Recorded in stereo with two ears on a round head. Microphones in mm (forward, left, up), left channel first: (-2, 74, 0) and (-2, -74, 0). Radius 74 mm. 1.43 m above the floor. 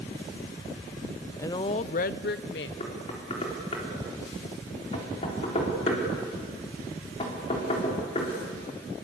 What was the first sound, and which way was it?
A woman speaking, 15° left (ahead or behind).